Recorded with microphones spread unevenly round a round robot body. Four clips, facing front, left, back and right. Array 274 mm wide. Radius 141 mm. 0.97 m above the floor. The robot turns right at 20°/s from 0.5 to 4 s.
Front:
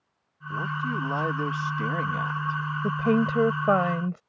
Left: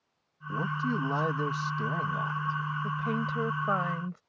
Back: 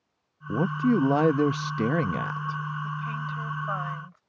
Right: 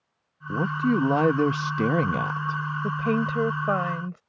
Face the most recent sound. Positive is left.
turn(degrees=-10)